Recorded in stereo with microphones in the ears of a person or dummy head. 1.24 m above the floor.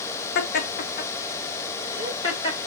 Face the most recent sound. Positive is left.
turn(degrees=35)  # may be behind; listen again after turning